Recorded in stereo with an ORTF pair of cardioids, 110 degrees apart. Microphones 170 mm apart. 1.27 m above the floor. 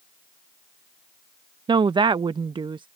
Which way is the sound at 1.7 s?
30° right.